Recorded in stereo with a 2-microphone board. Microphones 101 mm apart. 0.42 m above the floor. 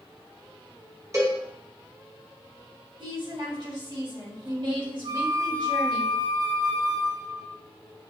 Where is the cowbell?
30° right (ahead or behind), 1.2 m.